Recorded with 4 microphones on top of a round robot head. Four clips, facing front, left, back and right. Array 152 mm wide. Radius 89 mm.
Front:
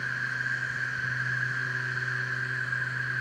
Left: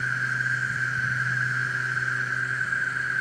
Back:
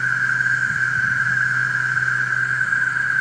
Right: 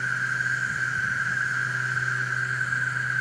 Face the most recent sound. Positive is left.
turn(degrees=-175)